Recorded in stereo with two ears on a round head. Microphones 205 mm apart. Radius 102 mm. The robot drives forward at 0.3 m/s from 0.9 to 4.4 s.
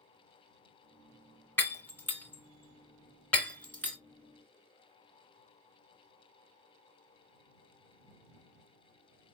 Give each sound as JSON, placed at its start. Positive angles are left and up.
{"t": 1.6, "sound": "breaking glass", "side_deg": 10, "distance_m": 1.4}